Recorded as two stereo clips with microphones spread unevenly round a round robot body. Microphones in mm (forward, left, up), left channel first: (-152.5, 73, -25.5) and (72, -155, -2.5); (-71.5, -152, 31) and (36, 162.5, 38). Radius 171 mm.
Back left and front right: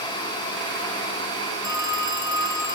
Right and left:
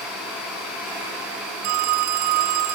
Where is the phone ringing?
70° left, 2.5 m.